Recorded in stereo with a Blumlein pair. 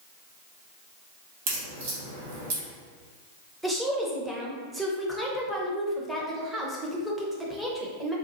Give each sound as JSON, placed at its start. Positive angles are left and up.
{"t": 1.5, "sound": "a crack", "azimuth_deg": -55, "distance_m": 1.4}
{"t": 3.6, "sound": "a woman speaking", "azimuth_deg": -5, "distance_m": 0.9}